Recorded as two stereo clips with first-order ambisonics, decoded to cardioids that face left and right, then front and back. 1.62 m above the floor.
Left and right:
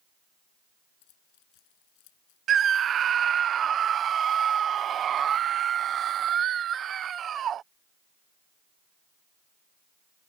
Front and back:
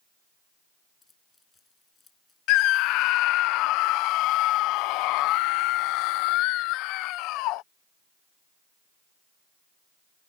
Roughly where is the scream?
Ahead right.